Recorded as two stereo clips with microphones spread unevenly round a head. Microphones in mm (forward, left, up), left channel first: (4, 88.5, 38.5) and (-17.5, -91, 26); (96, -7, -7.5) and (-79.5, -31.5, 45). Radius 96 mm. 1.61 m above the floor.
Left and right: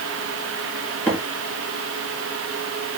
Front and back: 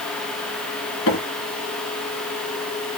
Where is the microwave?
Straight ahead, 1.9 m.